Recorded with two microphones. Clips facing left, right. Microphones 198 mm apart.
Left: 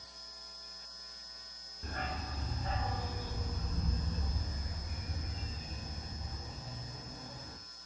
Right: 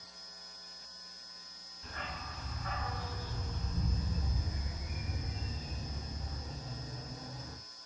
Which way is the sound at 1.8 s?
50° left (ahead or behind).